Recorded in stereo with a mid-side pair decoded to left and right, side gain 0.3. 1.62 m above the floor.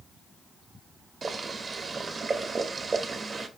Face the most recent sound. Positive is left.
turn(degrees=-55)